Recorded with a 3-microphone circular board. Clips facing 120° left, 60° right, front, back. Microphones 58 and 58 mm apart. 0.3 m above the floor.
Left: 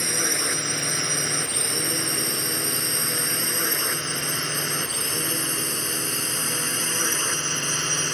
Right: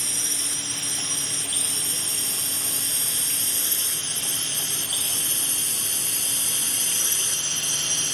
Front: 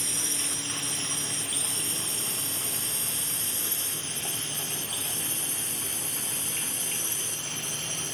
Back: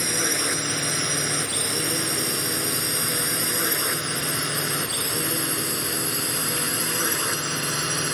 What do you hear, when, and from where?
0.0 s a drone: 155° left; by 8.2 s 170° left